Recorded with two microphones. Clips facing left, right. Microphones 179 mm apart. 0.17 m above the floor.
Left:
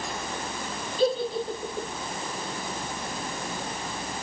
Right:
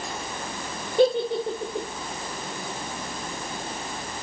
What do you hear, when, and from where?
1.0 s a giggle: 70° right (ahead or behind), 4 m